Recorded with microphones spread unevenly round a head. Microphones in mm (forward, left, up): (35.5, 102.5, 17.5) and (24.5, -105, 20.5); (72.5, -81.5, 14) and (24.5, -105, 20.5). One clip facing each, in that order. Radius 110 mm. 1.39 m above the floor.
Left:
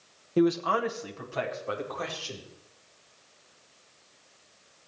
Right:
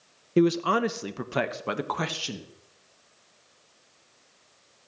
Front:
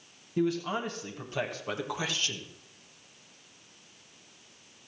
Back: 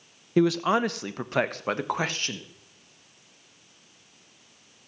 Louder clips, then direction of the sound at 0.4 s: Right 2 dB, back 8 dB; 155° right.